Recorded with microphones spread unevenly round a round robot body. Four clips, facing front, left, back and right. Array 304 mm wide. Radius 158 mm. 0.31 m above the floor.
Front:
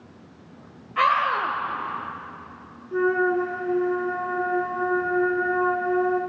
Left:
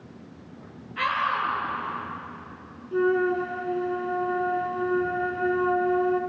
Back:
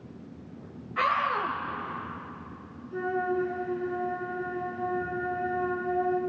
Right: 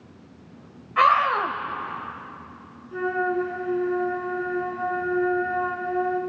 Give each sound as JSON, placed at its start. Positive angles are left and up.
{"t": 1.0, "sound": "a scream", "azimuth_deg": -95, "distance_m": 1.7}
{"t": 2.9, "sound": "a flute", "azimuth_deg": 20, "distance_m": 3.0}